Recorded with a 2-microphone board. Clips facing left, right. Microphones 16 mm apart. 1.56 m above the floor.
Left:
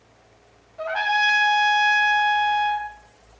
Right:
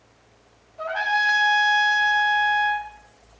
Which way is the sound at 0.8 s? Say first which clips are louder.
Left 1 dB; 20° left (ahead or behind).